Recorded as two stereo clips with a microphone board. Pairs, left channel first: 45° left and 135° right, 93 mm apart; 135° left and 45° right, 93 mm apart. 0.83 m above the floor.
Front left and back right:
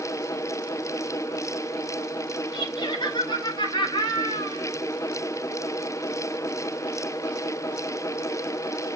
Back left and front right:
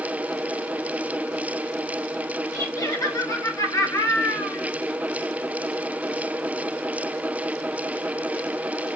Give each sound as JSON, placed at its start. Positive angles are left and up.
{"t": 2.5, "sound": "laughter", "azimuth_deg": 85, "distance_m": 6.5}